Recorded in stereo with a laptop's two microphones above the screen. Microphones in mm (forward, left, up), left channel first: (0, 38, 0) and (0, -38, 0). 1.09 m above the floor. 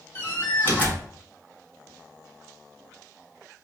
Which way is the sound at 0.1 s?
30° left (ahead or behind).